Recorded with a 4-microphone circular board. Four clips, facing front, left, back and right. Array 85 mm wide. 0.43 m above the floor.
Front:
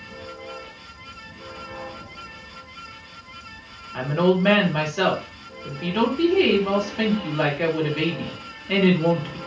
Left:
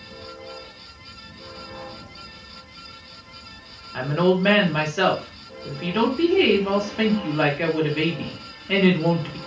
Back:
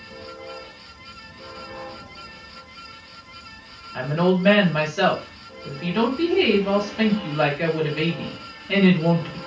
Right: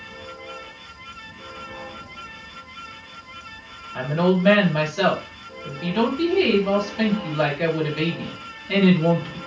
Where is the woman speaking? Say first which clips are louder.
Left 1 dB, front 1 dB; 80° left, 1.3 m.